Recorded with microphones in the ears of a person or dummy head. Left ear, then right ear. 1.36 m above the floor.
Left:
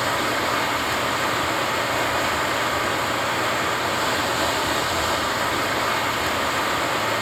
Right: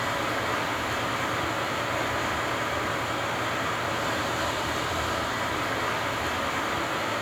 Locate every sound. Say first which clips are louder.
0.0 s running water: left 5 dB; 25° left (ahead or behind), 1.0 m